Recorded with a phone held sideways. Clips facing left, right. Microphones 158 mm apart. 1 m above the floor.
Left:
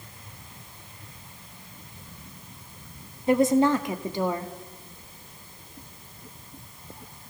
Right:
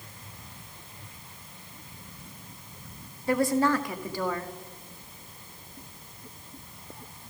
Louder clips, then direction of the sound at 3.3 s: Left 4 dB; 20° left (ahead or behind).